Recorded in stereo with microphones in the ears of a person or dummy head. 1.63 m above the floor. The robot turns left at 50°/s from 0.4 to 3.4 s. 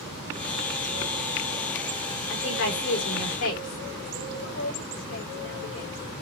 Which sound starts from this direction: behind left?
A woman speaking, at 2.3 s.